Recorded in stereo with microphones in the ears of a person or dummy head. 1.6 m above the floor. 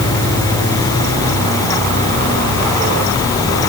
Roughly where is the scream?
No scream in this recording.